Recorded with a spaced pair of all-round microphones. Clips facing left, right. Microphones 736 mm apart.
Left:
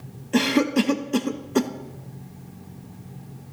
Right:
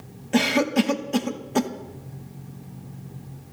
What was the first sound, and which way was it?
A cough, 25° right (ahead or behind).